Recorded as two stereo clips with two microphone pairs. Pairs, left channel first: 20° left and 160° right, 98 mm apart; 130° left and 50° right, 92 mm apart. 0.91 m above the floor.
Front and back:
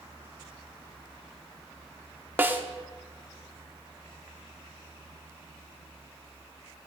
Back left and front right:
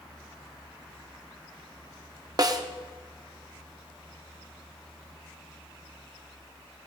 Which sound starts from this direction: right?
A snare drum, at 2.4 s.